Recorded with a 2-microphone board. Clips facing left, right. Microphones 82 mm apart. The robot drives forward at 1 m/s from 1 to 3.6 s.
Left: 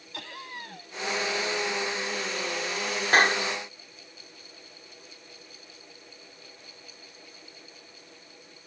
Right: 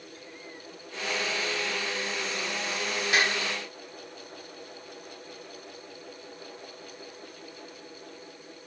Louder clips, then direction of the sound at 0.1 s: Left 9 dB; 80° left.